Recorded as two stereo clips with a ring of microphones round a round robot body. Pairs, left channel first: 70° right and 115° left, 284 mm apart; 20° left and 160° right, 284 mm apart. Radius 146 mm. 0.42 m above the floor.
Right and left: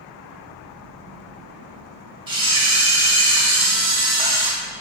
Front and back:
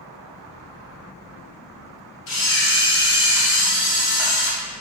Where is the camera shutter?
45° left, 1.0 m.